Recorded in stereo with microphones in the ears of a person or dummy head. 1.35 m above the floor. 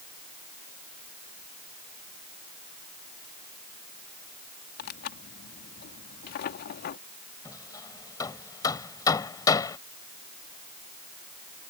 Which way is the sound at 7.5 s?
20° left (ahead or behind).